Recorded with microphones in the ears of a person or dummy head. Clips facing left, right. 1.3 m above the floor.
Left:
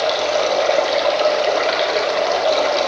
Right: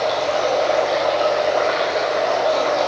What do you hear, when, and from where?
0.0 s running water: 40° left (ahead or behind), 2.0 m